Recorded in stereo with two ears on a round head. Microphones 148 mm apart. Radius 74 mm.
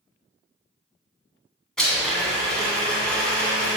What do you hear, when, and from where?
1.8 s a blender: 5° left (ahead or behind), 1.8 m